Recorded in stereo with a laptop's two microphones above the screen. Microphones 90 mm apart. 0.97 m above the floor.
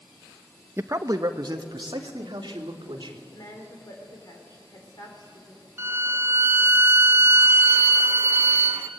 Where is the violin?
25° right (ahead or behind), 1.3 m.